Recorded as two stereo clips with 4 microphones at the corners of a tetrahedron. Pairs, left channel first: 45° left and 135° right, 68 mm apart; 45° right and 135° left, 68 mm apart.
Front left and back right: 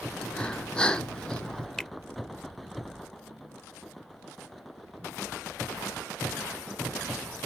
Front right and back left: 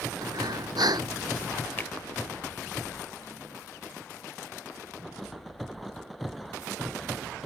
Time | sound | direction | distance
0.2 | breathing | 125° left | ?
1.8 | a finger snap | 35° right | ?